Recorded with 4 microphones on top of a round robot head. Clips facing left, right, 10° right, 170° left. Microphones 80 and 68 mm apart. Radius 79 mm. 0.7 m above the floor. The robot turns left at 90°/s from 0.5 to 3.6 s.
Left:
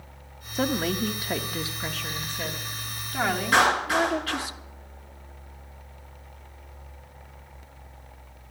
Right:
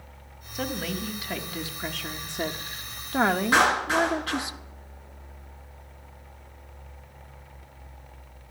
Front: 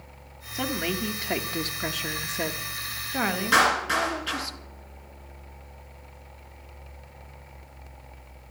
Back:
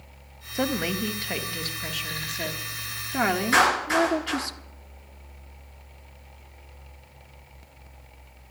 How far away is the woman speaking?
About 1.0 m.